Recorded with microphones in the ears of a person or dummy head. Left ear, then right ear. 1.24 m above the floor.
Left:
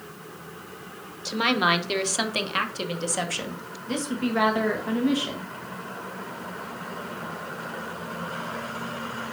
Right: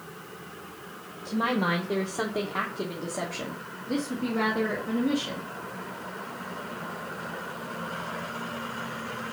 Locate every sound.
1.2 s a woman speaking: 55° left (ahead or behind), 1.0 m; by 5.5 s 40° left (ahead or behind), 2 m